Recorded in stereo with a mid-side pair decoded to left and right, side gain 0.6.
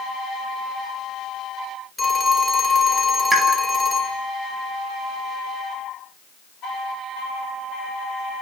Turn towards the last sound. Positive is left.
turn(degrees=-20)